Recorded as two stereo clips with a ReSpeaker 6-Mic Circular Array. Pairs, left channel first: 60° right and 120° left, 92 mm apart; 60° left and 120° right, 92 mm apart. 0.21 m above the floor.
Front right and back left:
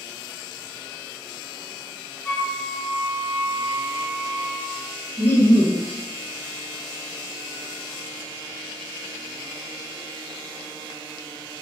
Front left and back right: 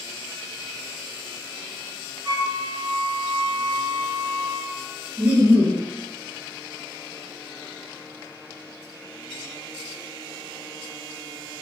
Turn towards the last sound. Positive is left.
turn(degrees=-70)